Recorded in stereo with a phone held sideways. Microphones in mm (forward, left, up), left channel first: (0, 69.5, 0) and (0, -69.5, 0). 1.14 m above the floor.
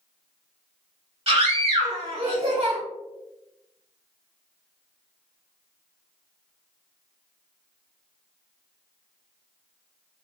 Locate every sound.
1.3 s a scream: 40° right (ahead or behind), 1.6 m